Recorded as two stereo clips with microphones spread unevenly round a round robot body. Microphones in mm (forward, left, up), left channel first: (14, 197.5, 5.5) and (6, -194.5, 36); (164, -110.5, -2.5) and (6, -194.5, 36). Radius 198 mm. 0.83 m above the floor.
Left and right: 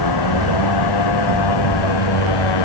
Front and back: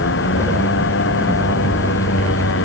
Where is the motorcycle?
50° left; by 2.6 s 65° left.